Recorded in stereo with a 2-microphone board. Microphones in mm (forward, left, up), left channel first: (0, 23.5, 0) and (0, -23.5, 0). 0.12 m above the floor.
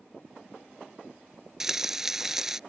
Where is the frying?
10° right (ahead or behind).